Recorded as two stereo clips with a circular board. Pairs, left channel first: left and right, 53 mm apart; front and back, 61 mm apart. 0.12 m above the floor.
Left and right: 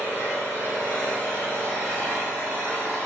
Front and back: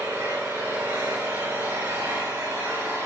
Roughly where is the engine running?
Behind.